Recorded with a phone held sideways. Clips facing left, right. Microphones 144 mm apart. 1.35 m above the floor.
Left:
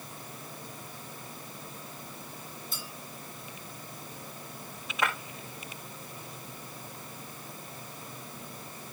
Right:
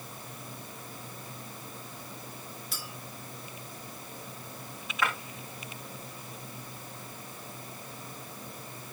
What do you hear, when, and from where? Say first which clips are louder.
2.7 s a clink: even; 80° right, 2.5 m
5.0 s breaking glass: even; 20° left (ahead or behind), 5.5 m